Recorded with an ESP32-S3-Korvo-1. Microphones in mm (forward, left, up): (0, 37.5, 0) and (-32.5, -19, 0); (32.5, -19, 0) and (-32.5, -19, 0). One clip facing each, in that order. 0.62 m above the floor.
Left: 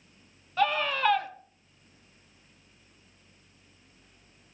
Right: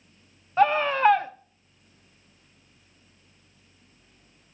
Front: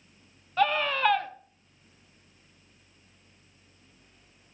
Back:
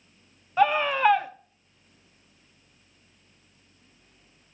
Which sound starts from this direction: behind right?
A scream, at 0.6 s.